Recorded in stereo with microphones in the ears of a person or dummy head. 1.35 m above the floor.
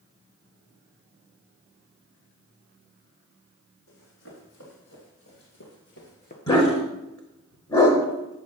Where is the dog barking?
20° left (ahead or behind), 1.6 m.